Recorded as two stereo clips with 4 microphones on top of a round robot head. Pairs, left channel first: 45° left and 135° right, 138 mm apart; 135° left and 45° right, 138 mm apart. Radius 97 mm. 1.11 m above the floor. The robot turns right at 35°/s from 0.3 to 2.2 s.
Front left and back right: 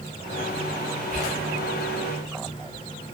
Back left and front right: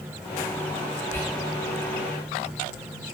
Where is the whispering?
150° right, 1.2 m; by 1.4 s 145° right, 1.2 m.